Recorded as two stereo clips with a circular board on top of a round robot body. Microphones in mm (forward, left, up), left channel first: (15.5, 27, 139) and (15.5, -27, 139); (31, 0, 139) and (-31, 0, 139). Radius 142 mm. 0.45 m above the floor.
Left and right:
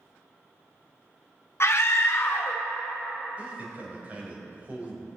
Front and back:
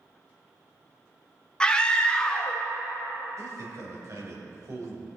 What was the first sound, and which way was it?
A scream, 75° left.